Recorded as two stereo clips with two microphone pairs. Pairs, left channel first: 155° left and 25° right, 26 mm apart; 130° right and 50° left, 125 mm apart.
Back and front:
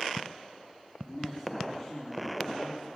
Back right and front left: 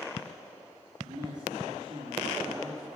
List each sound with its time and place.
1.0 s a man speaking: 105° left, 5 m